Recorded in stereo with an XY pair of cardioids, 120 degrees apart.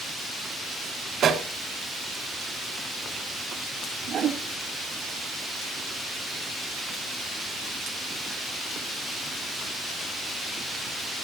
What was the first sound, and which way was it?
A pop, 60° right.